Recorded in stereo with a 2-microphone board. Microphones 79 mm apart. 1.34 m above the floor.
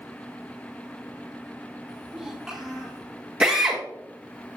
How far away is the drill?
About 1.5 m.